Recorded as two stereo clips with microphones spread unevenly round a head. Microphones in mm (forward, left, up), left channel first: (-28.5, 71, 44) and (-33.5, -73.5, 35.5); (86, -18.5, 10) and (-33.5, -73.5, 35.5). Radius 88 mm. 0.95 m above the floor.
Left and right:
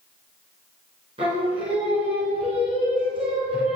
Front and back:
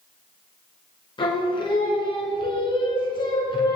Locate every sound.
1.2 s singing: 30° right, 2.5 m